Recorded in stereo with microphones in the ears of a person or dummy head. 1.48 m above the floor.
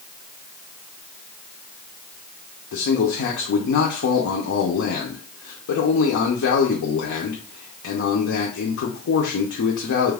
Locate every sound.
2.7 s a man speaking: 65° left (ahead or behind), 0.6 m